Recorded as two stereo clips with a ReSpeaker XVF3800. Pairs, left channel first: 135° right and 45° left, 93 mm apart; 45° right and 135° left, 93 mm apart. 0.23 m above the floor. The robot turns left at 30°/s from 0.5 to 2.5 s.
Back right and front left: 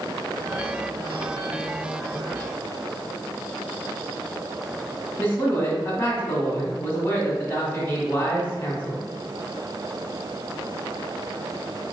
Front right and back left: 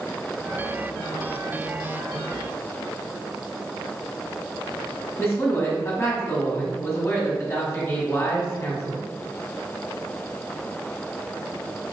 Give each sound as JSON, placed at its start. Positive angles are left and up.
{"t": 5.2, "sound": "a man speaking", "azimuth_deg": -85, "distance_m": 1.8}